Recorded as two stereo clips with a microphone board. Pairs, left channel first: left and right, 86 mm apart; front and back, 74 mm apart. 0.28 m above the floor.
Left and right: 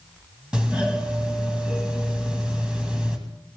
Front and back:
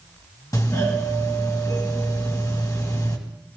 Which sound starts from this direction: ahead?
A doorbell, at 0.5 s.